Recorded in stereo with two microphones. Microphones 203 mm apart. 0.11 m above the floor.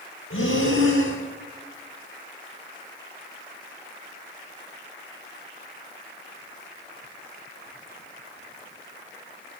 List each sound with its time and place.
0.3 s breathing: 90° left, 9.5 m